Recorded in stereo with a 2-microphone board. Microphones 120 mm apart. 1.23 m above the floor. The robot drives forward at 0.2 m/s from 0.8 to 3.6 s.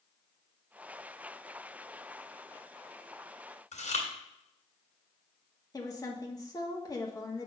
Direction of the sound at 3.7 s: 75° left (ahead or behind).